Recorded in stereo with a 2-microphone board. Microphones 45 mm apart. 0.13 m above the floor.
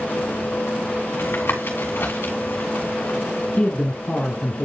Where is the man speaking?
25° left (ahead or behind), 1.6 m.